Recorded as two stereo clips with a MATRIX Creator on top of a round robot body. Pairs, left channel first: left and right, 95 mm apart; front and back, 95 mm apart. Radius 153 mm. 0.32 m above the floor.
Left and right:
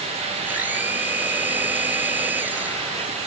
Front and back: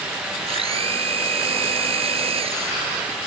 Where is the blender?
165° right.